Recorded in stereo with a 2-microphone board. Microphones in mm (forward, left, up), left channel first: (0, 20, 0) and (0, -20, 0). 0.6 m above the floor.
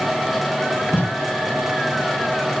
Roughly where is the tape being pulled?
Left.